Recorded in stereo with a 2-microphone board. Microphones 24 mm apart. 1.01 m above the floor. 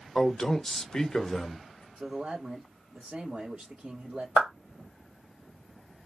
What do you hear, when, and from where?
0.1 s a man speaking: 20° left (ahead or behind), 0.8 m
2.0 s a man speaking: 65° right (ahead or behind), 1.7 m
4.4 s a clap: 80° right, 1.8 m